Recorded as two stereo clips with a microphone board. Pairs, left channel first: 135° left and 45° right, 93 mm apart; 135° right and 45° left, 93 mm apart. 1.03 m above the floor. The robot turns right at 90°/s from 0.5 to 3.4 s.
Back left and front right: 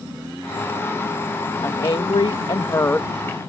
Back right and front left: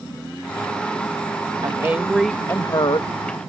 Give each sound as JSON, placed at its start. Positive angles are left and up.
{"t": 1.6, "sound": "a woman speaking", "azimuth_deg": 85}